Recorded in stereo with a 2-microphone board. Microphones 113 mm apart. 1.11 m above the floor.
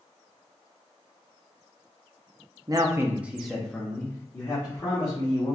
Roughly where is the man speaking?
Right.